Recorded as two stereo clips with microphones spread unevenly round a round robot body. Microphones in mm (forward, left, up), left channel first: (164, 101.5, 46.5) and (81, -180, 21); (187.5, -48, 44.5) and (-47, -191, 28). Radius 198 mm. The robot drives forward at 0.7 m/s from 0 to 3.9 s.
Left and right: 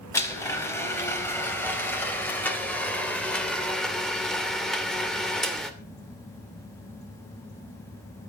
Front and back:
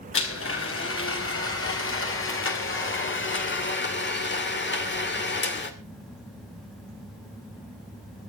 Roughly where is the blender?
Ahead.